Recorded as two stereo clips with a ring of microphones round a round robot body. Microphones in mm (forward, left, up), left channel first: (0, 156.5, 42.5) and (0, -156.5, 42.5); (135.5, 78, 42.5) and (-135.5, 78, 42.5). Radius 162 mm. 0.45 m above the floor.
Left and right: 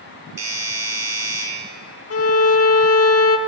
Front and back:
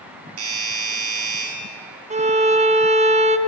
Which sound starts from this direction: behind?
A doorbell, at 0.4 s.